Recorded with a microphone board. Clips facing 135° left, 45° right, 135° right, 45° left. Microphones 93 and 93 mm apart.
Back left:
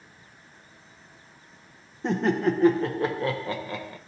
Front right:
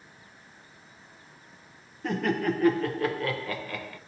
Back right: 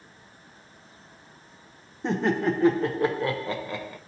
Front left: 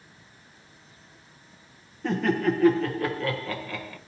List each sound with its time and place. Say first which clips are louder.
2.0 s laughter: back left 3 dB, even; 175° left, 0.7 m